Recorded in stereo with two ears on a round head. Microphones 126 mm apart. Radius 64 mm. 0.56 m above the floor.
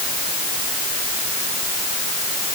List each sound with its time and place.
Only background noise.